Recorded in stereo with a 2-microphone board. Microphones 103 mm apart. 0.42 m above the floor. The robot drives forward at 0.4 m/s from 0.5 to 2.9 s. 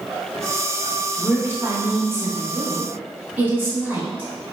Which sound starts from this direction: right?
A woman speaking, at 1.2 s.